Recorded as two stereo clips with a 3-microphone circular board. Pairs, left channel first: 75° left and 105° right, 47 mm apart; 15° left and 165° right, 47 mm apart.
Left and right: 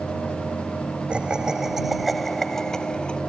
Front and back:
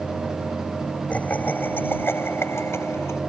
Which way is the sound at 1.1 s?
40° right.